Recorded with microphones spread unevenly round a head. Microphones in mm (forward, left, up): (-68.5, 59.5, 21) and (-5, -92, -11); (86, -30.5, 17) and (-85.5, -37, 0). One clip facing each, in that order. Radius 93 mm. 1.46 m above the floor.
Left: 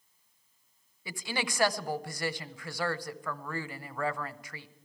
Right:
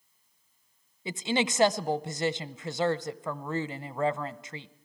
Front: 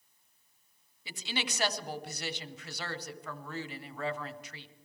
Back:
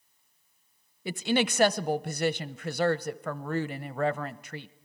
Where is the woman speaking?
140° right, 0.7 m.